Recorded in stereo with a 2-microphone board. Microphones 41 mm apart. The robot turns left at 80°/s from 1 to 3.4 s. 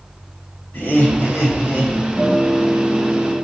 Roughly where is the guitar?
Ahead.